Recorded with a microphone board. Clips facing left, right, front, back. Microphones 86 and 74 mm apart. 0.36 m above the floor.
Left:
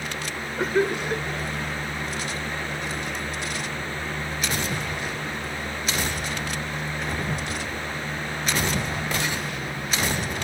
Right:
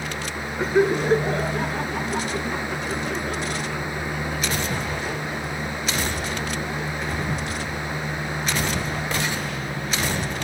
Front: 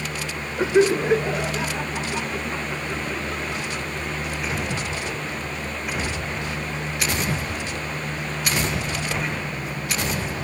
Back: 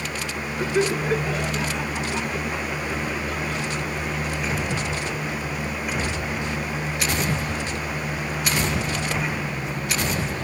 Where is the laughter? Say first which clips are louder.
Right 4 dB, front 5 dB; 10° left; by 7.5 s 85° right.